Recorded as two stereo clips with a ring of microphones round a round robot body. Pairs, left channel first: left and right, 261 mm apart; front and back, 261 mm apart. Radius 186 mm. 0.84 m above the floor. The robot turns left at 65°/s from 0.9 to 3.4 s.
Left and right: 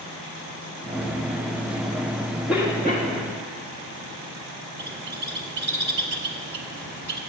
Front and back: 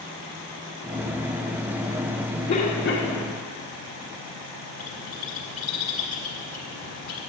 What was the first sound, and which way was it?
A cough, 5° right.